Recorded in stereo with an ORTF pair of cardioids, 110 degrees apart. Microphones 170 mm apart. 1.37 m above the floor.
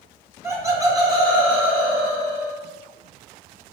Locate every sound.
0.4 s laughter: 15° right, 1.5 m; by 2.6 s 35° right, 2.5 m